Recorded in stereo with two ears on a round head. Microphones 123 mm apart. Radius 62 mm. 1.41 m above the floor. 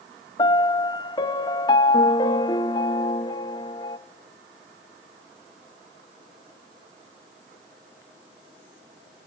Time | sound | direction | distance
0.4 | a piano | 30° left (ahead or behind) | 0.6 m